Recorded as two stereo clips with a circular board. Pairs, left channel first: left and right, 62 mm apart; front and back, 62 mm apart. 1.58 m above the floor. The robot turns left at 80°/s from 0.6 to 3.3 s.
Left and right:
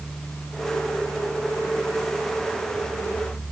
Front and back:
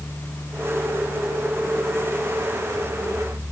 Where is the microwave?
I don't hear a microwave.